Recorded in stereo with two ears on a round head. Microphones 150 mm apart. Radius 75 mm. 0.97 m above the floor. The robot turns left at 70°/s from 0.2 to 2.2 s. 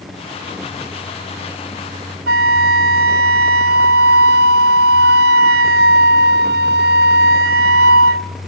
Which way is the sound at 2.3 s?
60° right (ahead or behind).